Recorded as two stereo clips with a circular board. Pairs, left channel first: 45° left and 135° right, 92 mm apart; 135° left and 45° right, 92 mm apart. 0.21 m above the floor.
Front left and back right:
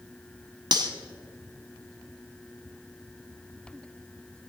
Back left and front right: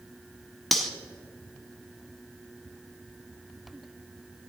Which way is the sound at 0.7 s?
135° right.